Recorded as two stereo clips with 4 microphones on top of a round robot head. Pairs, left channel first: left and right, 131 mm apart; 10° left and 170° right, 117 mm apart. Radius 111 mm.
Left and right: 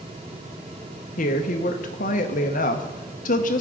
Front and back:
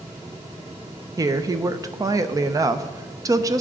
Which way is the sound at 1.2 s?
130° left.